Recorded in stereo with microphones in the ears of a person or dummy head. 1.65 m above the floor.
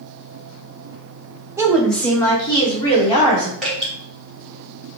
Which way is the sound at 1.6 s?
20° right (ahead or behind).